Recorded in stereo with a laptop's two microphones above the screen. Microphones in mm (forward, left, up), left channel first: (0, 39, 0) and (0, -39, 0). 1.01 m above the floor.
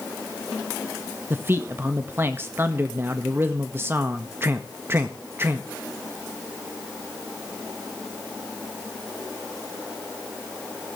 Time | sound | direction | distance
1.3 | a man speaking | 30° right (ahead or behind) | 1.3 m